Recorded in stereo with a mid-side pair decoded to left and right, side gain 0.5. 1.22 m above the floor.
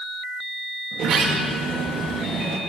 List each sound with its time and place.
0.9 s a sliding door: 60° right, 2.0 m